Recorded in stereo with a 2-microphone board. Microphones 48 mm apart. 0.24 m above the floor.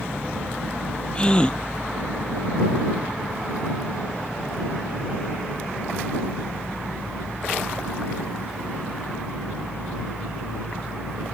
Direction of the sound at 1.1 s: 20° left (ahead or behind).